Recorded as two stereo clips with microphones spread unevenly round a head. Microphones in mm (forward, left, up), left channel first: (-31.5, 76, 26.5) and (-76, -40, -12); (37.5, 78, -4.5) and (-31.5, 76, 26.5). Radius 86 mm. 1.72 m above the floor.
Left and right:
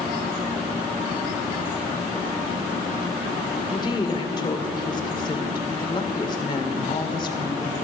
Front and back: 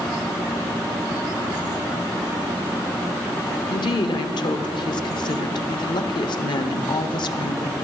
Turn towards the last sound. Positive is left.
turn(degrees=5)